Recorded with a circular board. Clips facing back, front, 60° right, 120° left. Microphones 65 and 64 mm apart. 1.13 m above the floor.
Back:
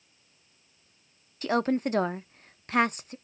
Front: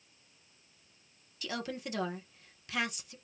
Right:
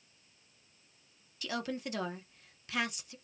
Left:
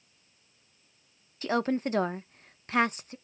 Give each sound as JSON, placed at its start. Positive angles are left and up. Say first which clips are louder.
{"t": 1.4, "sound": "a woman speaking", "louder": "back 13 dB, left 10 dB", "azimuth_deg": 155, "distance_m": 0.6}